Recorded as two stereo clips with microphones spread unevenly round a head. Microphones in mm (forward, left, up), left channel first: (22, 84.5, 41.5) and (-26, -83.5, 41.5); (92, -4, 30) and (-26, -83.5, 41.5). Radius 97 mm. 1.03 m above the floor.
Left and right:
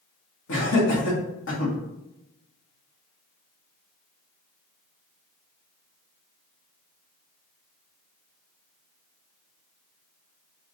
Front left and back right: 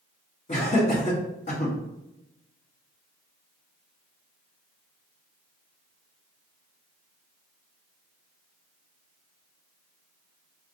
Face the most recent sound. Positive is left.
turn(degrees=85)